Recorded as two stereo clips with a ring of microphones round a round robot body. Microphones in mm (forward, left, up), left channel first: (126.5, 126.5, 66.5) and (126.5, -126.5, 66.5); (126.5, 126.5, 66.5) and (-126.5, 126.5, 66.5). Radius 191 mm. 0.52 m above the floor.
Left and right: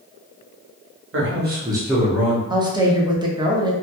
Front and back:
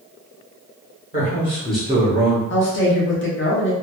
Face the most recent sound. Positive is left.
turn(degrees=-20)